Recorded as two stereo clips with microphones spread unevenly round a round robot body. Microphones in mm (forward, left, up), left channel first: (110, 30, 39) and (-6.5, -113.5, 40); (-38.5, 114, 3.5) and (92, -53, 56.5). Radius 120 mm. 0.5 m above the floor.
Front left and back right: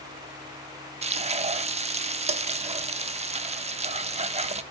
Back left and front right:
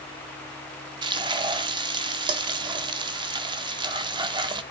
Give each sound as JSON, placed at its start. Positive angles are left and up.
{"t": 1.0, "sound": "frying", "azimuth_deg": -130, "distance_m": 0.9}